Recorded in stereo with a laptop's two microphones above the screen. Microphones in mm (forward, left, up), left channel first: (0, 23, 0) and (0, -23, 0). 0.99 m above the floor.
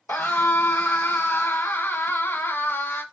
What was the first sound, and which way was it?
A scream, 50° left (ahead or behind).